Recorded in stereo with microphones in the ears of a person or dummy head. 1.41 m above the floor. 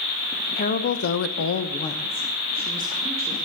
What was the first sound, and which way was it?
A woman speaking, 50° left (ahead or behind).